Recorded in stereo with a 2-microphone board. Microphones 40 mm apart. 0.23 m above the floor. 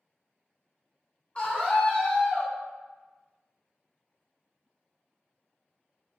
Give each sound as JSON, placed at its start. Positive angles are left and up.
{"t": 1.4, "sound": "a scream", "side_deg": 30, "distance_m": 1.4}